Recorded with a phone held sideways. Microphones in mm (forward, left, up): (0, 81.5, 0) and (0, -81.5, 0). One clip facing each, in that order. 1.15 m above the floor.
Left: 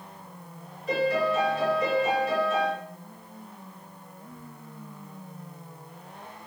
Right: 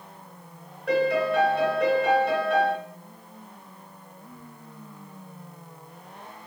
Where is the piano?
60° right (ahead or behind), 1.6 m.